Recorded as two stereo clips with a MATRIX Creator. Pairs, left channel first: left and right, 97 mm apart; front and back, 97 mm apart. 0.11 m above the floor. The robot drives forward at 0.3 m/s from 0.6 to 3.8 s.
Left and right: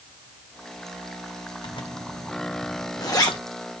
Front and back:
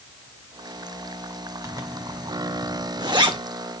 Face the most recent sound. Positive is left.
turn(degrees=145)